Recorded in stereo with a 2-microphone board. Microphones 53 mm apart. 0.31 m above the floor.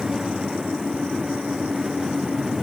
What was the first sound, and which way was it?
Only background noise.